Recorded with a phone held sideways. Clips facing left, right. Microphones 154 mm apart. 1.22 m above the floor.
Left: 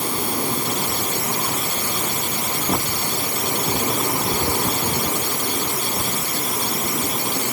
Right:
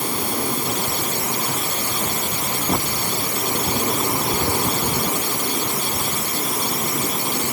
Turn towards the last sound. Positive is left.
No sound to turn to.